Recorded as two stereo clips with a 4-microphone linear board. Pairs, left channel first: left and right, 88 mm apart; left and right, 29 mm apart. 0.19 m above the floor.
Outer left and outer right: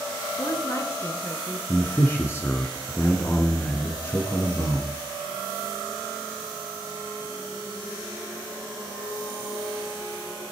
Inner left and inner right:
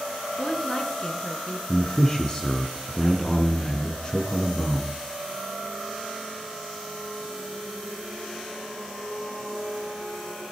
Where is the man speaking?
30° left (ahead or behind), 1.6 m.